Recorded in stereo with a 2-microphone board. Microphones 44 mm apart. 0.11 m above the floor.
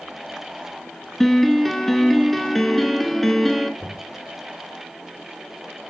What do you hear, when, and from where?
1.2 s a piano: 5° left (ahead or behind), 0.9 m
3.8 s knocking: 50° left (ahead or behind), 1.9 m